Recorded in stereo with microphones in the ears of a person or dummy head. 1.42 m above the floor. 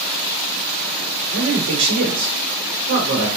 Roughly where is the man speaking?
Right.